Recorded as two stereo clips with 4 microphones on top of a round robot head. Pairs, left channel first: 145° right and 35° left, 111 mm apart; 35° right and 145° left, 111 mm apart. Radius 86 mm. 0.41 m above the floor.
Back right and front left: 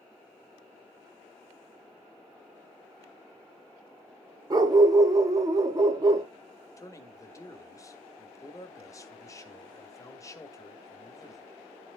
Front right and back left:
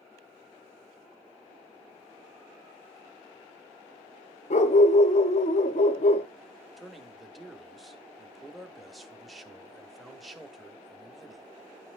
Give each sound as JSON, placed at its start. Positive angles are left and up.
{"t": 4.5, "sound": "a dog barking", "azimuth_deg": -25, "distance_m": 0.7}
{"t": 6.8, "sound": "a man speaking", "azimuth_deg": -120, "distance_m": 0.9}